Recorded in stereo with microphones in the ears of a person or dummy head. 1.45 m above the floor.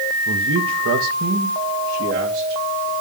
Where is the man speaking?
75° right (ahead or behind), 1.3 m; by 2.9 s 45° right (ahead or behind), 3.5 m.